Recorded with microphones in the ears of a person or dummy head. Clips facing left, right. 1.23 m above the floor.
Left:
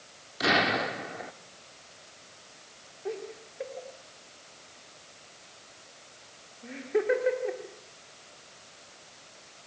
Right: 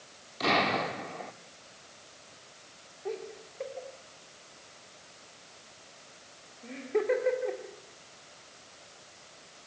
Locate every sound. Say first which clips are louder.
0.4 s an explosion: left 1 dB; 15° left (ahead or behind), 1.3 m
3.0 s laughter: left 1 dB; centre (ahead or behind), 3 m